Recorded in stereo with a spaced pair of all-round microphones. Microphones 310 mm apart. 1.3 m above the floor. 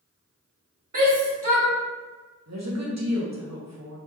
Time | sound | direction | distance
0.9 | a shout | 85° right | 1.2 m
2.5 | a woman speaking | 55° right (ahead or behind) | 0.9 m